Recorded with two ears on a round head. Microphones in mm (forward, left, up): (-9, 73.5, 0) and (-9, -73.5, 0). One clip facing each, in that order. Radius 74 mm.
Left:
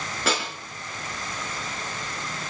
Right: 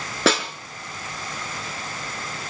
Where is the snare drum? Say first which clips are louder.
Right 7 dB; 55° right (ahead or behind), 3.5 m.